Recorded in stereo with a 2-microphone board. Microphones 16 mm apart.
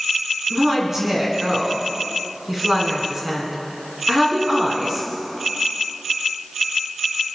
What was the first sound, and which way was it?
A woman speaking, 25° right (ahead or behind).